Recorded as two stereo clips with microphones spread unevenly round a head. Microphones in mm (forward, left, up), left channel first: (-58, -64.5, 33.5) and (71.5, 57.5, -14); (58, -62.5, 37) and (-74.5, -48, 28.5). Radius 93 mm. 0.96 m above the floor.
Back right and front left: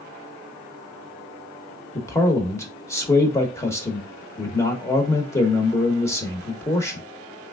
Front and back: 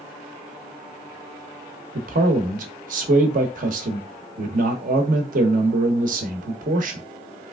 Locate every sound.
1.9 s a man speaking: 145° left, 0.7 m